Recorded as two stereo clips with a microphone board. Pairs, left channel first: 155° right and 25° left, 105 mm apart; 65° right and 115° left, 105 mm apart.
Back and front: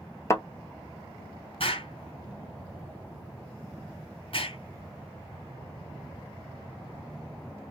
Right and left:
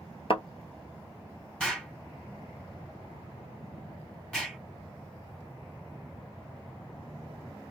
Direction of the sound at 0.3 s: 95° right.